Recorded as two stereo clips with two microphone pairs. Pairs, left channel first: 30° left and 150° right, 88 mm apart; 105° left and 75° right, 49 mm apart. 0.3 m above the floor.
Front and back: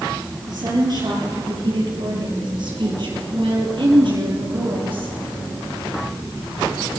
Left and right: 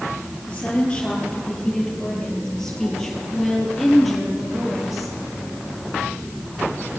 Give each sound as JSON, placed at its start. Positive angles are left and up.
{"t": 0.5, "sound": "a woman speaking", "azimuth_deg": 175, "distance_m": 8.0}